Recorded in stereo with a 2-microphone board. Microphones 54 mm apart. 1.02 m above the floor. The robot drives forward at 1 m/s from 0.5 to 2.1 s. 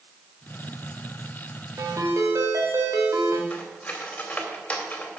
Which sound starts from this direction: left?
Cutlery clinking, at 3.5 s.